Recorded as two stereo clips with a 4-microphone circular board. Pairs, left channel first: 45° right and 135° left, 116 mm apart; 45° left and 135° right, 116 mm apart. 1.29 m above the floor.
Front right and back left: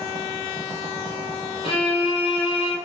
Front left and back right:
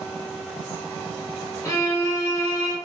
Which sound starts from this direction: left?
A violin, at 1.6 s.